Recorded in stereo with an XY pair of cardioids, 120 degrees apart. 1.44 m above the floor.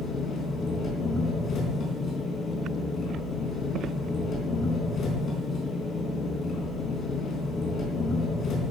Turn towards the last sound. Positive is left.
turn(degrees=50)